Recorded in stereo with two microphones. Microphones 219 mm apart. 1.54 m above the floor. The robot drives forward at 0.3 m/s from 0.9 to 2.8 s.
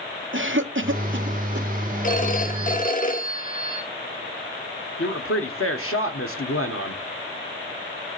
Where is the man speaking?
80° left, 1.4 m.